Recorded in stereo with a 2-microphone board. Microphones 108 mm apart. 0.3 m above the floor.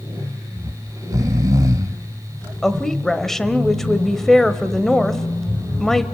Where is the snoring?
35° right (ahead or behind), 0.6 m.